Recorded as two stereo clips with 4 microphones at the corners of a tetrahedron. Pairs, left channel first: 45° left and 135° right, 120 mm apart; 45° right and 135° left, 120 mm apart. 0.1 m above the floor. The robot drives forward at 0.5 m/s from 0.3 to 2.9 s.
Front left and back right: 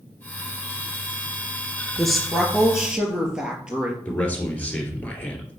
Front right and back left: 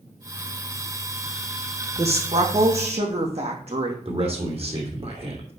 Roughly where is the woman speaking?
Behind left.